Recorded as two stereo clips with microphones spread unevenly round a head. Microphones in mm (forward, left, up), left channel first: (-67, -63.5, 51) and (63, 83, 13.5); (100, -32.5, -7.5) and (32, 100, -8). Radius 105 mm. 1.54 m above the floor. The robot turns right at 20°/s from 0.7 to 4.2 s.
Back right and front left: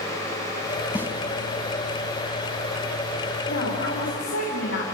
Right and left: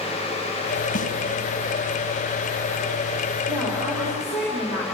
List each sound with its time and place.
0.9 s a snare drum: 40° right, 3 m; by 1.1 s 35° right, 3 m
3.5 s a woman speaking: 170° right, 4 m; by 4.8 s 155° right, 4 m